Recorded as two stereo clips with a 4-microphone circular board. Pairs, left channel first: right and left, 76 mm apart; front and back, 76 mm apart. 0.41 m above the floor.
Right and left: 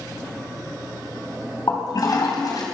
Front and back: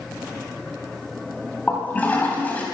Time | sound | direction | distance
1.7 | a toilet flushing | 65° right | 3 m